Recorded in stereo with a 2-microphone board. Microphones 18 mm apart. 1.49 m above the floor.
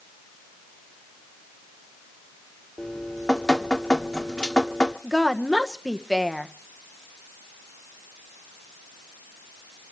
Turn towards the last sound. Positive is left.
turn(degrees=0)  # may be behind; listen again after turning